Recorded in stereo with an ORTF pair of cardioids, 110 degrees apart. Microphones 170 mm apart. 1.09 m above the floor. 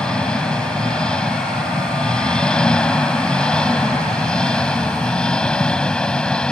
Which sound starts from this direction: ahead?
An engine running, at 0.0 s.